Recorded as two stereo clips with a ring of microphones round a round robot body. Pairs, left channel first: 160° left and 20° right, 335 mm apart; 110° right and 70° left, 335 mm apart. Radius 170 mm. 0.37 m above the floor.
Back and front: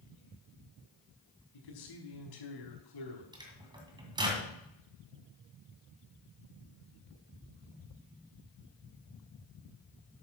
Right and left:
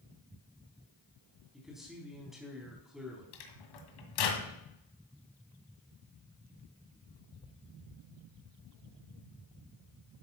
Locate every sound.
1.5 s a man speaking: 155° left, 4 m
3.3 s a microwave: 100° right, 2 m